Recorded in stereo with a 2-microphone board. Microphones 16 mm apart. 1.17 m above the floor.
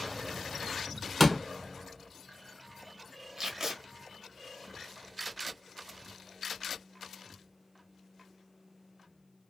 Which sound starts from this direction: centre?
A door slam, at 1.2 s.